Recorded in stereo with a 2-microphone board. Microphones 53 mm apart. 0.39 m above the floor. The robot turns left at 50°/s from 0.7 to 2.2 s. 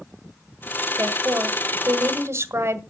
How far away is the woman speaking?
About 1.6 m.